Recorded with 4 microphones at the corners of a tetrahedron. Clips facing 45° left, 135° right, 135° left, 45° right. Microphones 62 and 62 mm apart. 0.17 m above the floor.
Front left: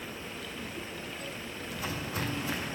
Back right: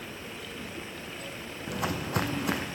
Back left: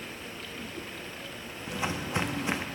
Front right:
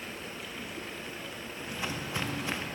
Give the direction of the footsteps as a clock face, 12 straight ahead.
5 o'clock.